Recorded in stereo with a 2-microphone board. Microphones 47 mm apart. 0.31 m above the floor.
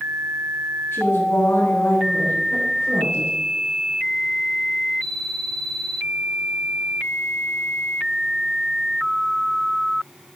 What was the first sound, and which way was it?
A woman speaking, 50° left (ahead or behind).